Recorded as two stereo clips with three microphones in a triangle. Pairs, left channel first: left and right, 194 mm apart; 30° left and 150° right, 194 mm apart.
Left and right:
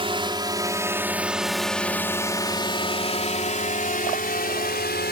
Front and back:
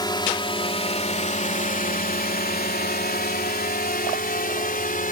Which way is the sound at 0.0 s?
35° right.